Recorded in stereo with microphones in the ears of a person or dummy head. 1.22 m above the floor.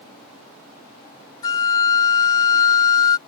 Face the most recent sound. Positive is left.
turn(degrees=20)  # may be behind; listen again after turning